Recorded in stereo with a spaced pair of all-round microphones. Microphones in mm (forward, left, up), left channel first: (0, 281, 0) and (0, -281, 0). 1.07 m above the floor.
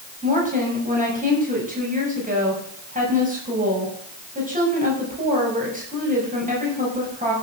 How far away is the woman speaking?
About 6.5 m.